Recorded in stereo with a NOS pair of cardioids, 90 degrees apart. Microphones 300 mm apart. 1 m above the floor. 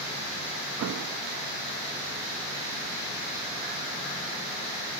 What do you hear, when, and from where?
0.8 s an explosion: 55° right, 0.9 m